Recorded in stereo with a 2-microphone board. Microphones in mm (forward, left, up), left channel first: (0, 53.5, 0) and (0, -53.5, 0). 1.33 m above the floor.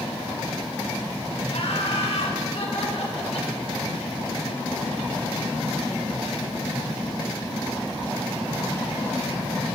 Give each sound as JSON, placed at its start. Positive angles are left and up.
{"t": 1.5, "sound": "laughter", "side_deg": 75, "distance_m": 5.0}